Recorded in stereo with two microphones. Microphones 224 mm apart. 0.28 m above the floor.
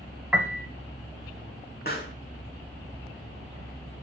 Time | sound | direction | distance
0.3 | a piano | 5° right (ahead or behind) | 2.5 m
1.9 | a pop | 40° left (ahead or behind) | 4.5 m